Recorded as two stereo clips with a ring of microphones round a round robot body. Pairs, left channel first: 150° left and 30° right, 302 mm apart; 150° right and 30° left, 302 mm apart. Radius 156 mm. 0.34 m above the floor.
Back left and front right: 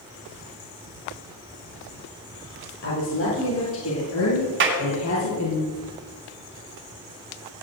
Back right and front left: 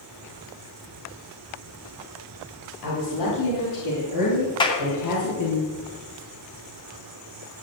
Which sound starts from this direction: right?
A clap, at 4.6 s.